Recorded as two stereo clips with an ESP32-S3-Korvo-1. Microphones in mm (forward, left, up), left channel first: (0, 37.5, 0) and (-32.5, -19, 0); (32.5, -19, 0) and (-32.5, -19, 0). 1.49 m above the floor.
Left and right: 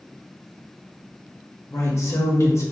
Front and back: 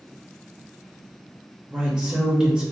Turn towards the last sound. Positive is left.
turn(degrees=105)